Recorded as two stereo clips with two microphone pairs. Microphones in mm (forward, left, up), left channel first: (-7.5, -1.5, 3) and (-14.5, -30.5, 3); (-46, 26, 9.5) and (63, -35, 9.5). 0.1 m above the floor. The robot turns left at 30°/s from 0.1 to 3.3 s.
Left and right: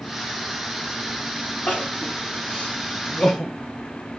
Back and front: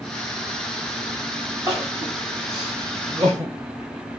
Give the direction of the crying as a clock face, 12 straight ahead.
9 o'clock.